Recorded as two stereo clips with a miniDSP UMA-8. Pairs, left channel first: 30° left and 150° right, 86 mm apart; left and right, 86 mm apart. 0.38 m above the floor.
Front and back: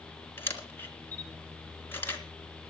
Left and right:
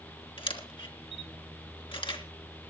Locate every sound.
0.4 s a camera shutter: 95° left, 3.5 m